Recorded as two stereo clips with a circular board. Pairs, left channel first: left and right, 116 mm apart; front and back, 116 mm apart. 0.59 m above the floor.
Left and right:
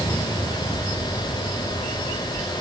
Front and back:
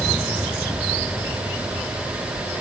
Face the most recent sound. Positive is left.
No sound to turn to.